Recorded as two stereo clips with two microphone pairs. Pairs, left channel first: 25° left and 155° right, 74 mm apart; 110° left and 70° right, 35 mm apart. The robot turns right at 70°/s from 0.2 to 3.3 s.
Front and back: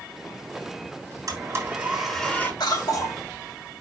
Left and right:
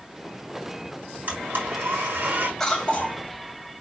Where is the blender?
120° right, 6 m; by 2.5 s 35° right, 6 m.